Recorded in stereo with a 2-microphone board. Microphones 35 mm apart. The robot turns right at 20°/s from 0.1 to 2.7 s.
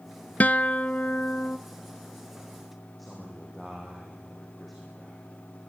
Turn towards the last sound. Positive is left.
turn(degrees=0)  # may be behind; listen again after turning